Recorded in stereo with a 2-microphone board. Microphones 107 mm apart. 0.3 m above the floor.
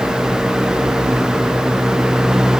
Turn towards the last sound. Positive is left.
No sound to turn to.